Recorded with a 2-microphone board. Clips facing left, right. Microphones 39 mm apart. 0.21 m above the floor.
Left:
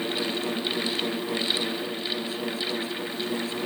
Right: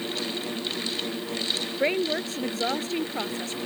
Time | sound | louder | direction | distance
1.8 | a woman speaking | right 6 dB | 70° right (ahead or behind) | ?